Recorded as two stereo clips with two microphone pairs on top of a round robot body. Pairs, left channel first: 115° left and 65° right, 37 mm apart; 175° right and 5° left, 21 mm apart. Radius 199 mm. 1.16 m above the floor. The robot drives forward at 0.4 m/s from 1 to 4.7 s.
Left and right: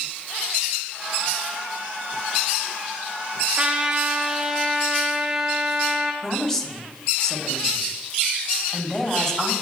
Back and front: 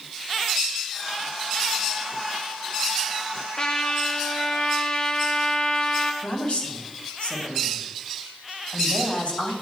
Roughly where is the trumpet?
Behind right.